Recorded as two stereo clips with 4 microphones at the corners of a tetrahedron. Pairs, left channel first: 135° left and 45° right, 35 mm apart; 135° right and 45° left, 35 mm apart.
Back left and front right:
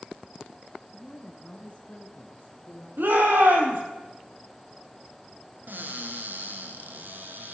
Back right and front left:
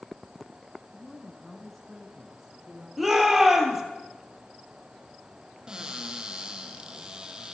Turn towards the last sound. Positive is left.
turn(degrees=-20)